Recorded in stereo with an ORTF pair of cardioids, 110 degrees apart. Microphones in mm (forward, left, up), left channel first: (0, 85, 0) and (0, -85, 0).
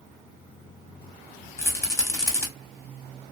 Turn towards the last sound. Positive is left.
turn(degrees=15)